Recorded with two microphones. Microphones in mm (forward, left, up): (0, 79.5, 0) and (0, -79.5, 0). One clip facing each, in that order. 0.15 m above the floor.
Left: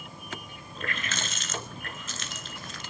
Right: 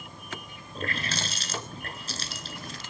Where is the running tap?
35° right (ahead or behind), 1.4 m.